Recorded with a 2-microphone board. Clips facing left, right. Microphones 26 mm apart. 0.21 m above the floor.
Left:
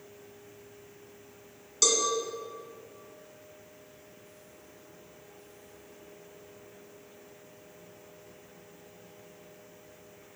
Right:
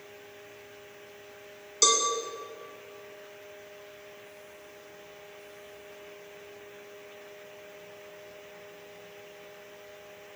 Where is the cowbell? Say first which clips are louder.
Right 2 dB; 15° right (ahead or behind), 1.5 m.